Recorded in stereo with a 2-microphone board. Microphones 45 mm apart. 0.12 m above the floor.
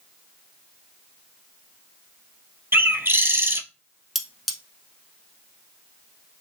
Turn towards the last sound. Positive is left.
turn(degrees=-5)  # may be behind; listen again after turning